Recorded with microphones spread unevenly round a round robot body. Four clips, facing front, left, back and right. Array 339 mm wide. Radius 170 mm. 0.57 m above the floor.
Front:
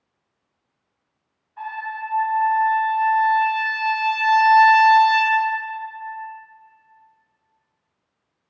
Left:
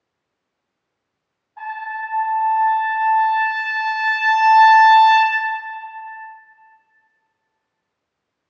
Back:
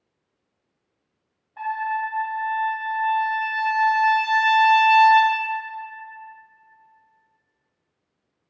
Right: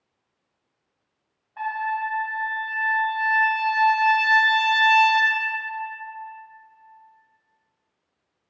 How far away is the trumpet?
About 0.7 m.